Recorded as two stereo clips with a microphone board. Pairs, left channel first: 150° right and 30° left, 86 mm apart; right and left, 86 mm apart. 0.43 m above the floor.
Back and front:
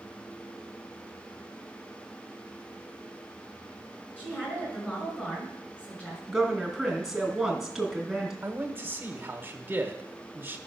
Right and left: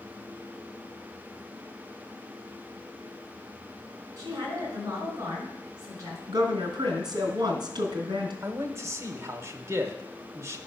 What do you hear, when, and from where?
4.2 s a woman speaking: 135° left, 5 m
6.3 s a woman speaking: 120° left, 3 m
8.4 s a man speaking: 75° left, 1.2 m